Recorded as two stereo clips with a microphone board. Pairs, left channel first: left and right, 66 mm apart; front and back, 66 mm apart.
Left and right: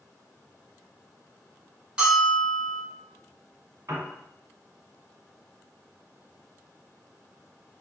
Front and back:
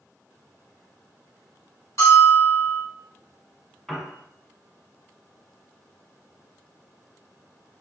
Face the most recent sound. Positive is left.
turn(degrees=-80)